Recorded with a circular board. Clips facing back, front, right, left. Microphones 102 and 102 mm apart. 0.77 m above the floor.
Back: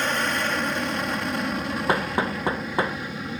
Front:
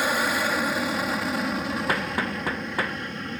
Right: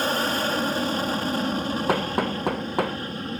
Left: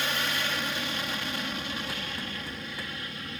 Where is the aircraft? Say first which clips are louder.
Front 1 dB, right 7 dB; 80° right; by 3.4 s 100° right.